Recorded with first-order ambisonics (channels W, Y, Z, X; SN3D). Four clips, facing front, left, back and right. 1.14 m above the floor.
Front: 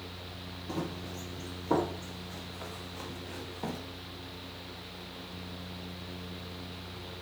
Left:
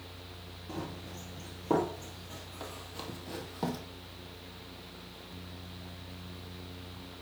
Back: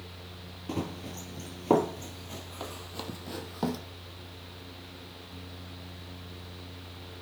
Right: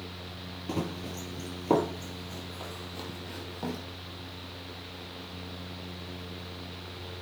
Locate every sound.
0.7 s running footsteps: 120° right, 1.7 m; by 3.8 s 165° left, 2.5 m